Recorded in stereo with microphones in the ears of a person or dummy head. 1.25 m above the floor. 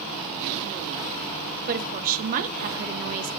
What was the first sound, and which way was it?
A woman speaking, 45° right (ahead or behind).